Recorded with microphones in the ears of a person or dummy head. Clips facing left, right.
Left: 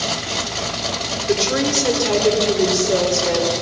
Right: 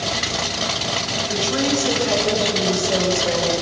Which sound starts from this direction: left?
A woman speaking, at 1.3 s.